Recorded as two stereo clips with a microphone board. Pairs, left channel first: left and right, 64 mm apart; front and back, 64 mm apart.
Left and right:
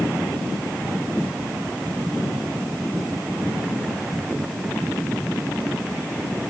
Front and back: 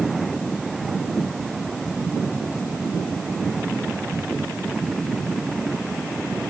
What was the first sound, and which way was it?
Only background noise.